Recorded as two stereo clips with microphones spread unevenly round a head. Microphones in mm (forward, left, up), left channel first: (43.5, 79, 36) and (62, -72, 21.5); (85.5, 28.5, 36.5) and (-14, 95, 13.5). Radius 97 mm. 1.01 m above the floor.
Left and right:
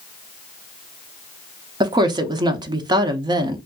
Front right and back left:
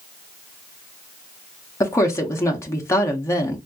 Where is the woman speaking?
105° right, 0.6 m.